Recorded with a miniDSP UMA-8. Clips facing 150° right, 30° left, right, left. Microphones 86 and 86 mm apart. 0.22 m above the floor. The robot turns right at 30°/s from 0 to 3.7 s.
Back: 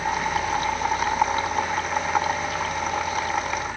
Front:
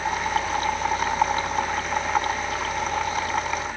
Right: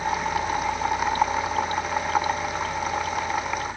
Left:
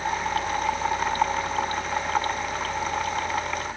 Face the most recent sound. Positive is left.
No sound to turn to.